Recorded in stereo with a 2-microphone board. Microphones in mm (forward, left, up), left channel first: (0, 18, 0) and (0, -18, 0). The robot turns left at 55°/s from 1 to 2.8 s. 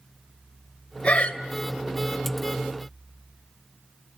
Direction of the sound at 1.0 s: 35° left (ahead or behind).